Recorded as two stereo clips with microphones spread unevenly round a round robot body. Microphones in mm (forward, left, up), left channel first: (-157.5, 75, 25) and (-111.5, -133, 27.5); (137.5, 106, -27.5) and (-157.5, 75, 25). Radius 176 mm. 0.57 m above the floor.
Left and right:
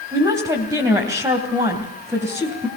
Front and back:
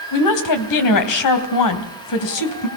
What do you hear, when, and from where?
0.1 s a woman speaking: straight ahead, 3 m